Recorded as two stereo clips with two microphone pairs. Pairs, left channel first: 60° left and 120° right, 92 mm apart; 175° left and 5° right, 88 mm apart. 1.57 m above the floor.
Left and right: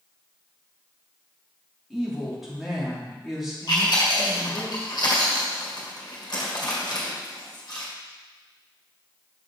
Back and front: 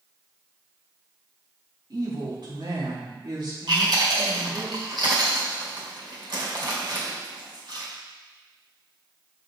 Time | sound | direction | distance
1.9 | a woman speaking | 35° right | 2.5 m
3.7 | chewing | 25° left | 1.8 m